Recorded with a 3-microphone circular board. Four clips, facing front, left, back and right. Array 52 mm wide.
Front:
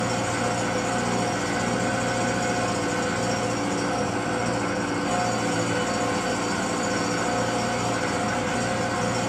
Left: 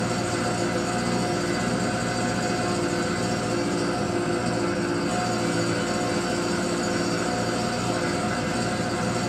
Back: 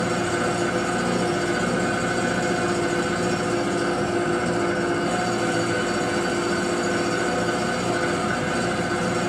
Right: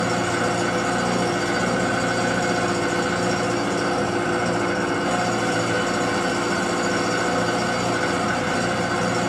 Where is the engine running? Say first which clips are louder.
Right 4 dB, back 2 dB; 100° right, 1.4 m.